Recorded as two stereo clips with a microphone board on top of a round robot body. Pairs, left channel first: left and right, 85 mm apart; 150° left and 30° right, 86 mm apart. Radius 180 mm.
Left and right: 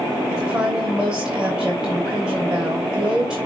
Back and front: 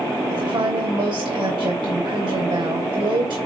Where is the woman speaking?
15° right, 4 m.